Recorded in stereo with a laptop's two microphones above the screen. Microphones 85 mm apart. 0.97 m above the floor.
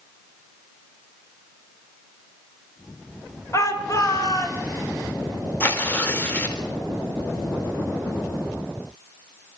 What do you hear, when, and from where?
3.5 s a shout: 40° left (ahead or behind), 4.5 m; by 4.6 s 45° left (ahead or behind), 6 m
5.6 s tearing paper: 20° left (ahead or behind), 3.5 m